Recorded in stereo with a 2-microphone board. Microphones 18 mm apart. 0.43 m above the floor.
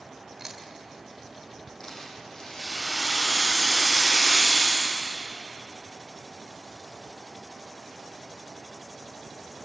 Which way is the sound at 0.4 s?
30° right (ahead or behind).